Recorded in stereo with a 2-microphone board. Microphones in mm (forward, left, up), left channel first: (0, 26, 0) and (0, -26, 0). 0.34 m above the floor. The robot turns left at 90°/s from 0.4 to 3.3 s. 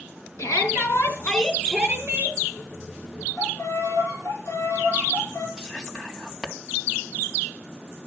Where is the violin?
55° left (ahead or behind), 7.5 m.